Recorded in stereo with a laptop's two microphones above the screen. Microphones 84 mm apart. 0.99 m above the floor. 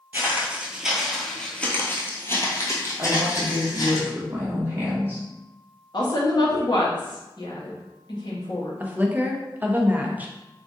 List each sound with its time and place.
0.1 s footsteps: 25° right (ahead or behind), 1.1 m; by 4.0 s 50° left (ahead or behind), 1.8 m
3.0 s a woman speaking: 25° right (ahead or behind), 1.2 m
5.9 s a woman speaking: 55° left (ahead or behind), 1.0 m
8.8 s a woman speaking: 20° right (ahead or behind), 0.5 m